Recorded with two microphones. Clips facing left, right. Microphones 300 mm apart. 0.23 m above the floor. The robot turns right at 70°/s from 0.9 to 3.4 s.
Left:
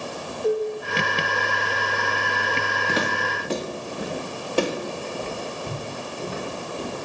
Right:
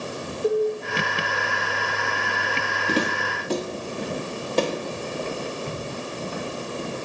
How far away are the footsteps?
About 1.6 m.